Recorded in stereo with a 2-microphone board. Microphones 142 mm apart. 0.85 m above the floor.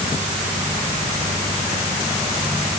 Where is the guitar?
I don't hear a guitar.